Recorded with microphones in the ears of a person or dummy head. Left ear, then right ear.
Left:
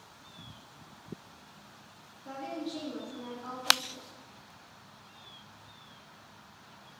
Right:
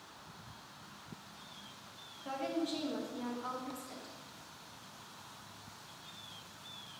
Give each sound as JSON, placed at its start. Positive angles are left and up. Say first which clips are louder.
{"t": 2.2, "sound": "a woman speaking", "louder": "right 2 dB", "side_deg": -25, "distance_m": 1.1}